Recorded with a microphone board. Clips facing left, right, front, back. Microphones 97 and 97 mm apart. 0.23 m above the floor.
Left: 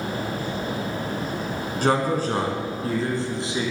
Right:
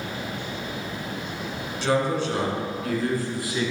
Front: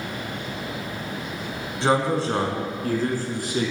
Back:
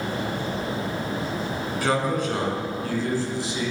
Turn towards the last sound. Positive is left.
turn(degrees=25)